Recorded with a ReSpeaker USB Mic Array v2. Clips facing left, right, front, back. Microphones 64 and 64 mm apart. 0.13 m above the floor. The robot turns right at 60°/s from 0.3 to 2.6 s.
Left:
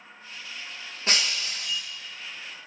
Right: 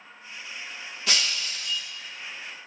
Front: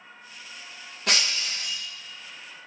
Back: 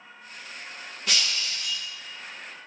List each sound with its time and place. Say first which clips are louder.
1.1 s breaking glass: left 1 dB, front 2 dB; 30° left, 6 m; by 1.8 s 75° left, 6 m